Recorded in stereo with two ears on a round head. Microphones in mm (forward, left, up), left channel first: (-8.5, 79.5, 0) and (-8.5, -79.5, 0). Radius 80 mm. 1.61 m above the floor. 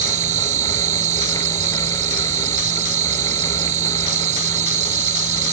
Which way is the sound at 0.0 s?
40° right (ahead or behind).